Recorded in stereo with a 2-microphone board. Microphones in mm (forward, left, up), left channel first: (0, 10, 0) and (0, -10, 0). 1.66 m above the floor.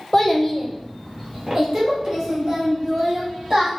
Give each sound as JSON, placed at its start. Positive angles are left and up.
{"t": 0.1, "sound": "a child speaking", "side_deg": 30, "distance_m": 0.8}